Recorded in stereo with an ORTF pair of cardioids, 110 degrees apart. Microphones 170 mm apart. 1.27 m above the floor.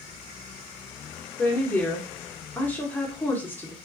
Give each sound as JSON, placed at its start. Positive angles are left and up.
{"t": 1.4, "sound": "a woman speaking", "azimuth_deg": 10, "distance_m": 1.0}